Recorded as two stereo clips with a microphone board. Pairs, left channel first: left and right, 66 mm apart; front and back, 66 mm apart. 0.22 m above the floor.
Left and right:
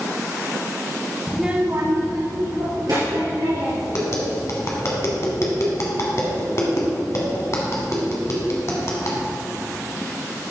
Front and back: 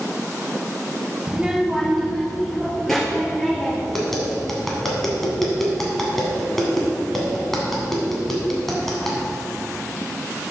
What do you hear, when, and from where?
1.3 s a child speaking: 135° left, 0.6 m; by 3.8 s 85° right, 3.5 m
3.9 s tapping: 85° left, 1.4 m